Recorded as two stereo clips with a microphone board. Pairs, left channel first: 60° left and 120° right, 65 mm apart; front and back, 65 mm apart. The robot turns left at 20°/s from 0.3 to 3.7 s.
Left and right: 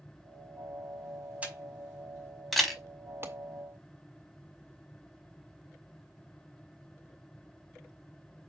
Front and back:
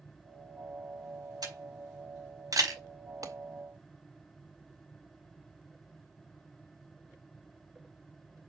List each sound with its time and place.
1.4 s a camera shutter: 175° left, 5 m; by 2.8 s 145° left, 5 m
3.2 s a clap: 165° right, 1.9 m